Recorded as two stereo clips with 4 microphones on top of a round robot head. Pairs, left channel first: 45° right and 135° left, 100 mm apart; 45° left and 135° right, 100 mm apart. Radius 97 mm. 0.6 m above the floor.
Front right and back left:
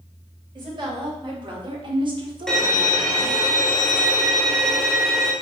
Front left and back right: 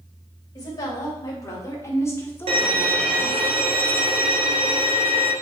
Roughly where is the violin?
Behind right.